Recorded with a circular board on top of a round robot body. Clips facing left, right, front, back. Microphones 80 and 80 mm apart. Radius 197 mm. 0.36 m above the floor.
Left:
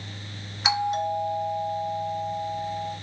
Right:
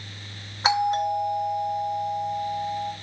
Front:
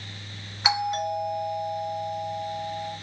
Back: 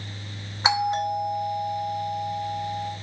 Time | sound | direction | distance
0.6 | a doorbell | 125° right | 3 m